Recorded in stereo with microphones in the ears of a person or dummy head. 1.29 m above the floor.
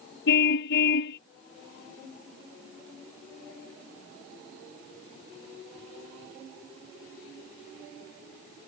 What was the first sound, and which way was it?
A car horn, 75° left (ahead or behind).